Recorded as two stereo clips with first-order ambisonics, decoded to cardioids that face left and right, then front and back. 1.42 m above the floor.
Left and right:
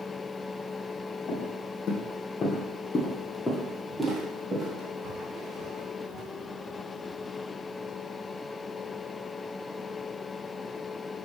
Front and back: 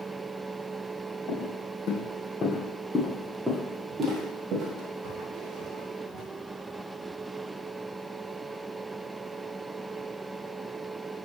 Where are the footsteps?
40° left, 2.5 m; by 6.2 s 150° right, 3.5 m.